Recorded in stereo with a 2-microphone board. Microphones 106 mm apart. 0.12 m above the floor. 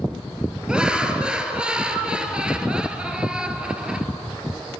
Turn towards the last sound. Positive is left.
turn(degrees=-5)  # may be behind; listen again after turning